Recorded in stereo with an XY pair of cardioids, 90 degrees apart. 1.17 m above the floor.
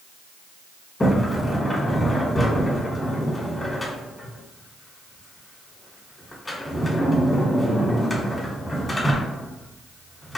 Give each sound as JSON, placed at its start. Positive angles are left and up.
{"t": 1.0, "sound": "a sliding door", "azimuth_deg": 30, "distance_m": 1.6}